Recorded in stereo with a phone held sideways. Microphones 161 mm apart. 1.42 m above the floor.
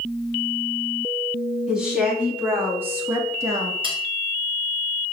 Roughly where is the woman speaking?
Centre.